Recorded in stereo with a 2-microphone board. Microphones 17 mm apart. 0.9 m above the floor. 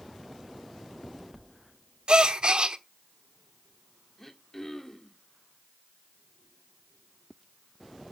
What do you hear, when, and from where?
2.1 s a gasp: 55° right (ahead or behind), 1.1 m
4.2 s throat clearing: 20° left (ahead or behind), 1.5 m